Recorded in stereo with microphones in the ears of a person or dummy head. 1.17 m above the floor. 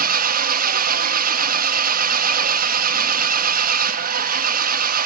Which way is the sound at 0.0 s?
50° right (ahead or behind).